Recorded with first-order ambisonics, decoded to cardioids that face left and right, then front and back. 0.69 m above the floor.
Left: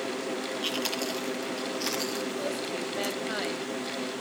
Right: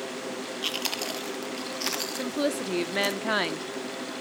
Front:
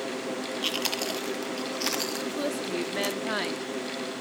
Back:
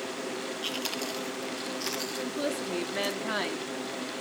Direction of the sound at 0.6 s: 30° right.